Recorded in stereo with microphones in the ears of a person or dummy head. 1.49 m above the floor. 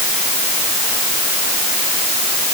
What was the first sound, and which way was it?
Only background noise.